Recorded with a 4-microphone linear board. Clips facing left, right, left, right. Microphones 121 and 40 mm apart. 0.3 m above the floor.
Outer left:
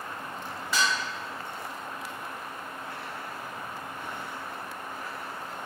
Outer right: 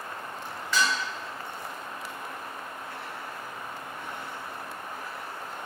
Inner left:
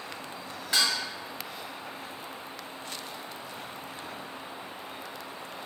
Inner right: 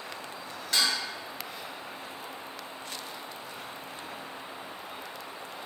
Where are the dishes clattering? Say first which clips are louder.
Outer right 1 dB, inner left 1 dB; 10° left (ahead or behind), 1.0 m.